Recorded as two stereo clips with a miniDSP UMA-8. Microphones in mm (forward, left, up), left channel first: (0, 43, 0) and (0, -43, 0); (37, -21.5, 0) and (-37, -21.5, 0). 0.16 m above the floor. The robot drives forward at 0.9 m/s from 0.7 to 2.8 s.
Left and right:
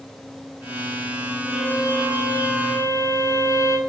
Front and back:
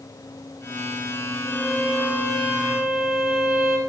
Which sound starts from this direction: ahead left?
A violin, at 1.4 s.